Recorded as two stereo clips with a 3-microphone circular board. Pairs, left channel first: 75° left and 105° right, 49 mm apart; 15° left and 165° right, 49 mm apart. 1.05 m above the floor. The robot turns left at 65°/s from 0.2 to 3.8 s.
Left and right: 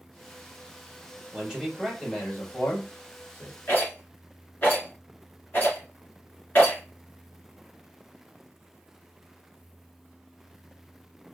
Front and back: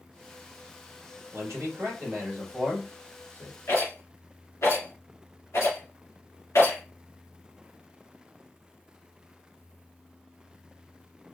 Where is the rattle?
30° left, 2.5 m; by 6.8 s 20° left, 2.5 m.